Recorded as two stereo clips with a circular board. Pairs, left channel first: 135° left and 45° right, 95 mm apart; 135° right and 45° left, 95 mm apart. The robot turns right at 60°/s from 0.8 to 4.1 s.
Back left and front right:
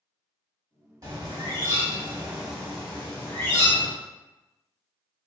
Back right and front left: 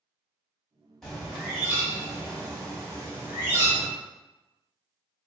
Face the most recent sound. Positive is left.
turn(degrees=130)